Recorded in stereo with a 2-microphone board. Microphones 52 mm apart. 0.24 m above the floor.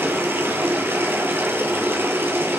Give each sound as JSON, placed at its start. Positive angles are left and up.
{"t": 0.0, "sound": "running water", "side_deg": -45, "distance_m": 1.9}